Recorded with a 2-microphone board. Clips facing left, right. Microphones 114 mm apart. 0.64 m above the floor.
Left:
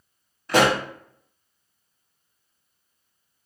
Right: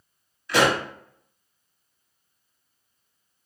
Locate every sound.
0.5 s a pop: 50° left (ahead or behind), 1.0 m